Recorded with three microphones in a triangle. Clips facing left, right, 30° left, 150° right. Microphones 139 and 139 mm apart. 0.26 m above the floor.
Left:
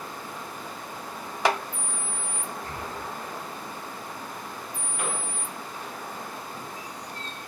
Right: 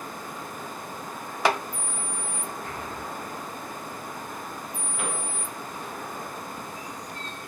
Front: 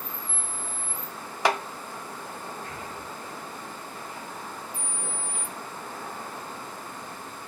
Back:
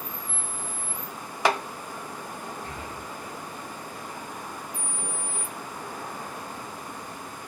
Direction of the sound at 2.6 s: 145° left.